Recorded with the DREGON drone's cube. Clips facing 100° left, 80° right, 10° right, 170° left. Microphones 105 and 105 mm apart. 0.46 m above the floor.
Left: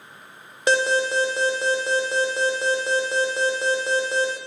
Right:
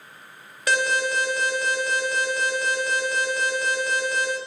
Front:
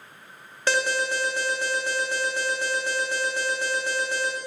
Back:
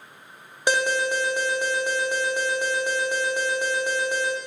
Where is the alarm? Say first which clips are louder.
Left 3 dB, back 2 dB; 110° left, 0.5 m.